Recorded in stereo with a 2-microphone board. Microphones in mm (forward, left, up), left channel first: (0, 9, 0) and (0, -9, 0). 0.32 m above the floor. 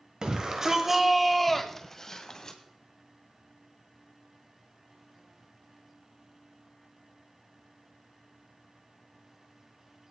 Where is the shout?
45° right (ahead or behind), 1.3 m; by 2.6 s 35° left (ahead or behind), 2.0 m.